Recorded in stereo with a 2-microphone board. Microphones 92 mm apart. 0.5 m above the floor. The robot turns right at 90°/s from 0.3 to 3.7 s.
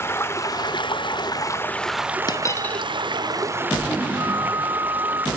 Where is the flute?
35° right (ahead or behind), 1.4 m.